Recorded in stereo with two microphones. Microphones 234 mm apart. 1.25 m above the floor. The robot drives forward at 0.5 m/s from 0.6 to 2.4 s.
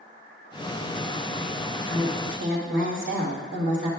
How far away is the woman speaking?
About 2 m.